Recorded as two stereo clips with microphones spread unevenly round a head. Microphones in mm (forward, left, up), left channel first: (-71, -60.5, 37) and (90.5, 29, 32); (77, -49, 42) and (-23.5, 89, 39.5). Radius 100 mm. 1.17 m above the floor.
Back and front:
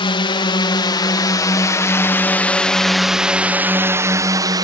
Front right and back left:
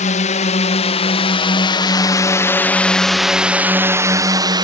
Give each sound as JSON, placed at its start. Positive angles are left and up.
{"t": 0.0, "sound": "a drone", "azimuth_deg": -90}